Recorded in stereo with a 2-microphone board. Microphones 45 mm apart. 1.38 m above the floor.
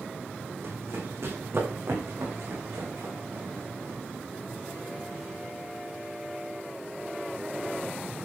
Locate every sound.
0.6 s running footsteps: 65° right (ahead or behind), 5.5 m; by 4.0 s 80° right, 7.5 m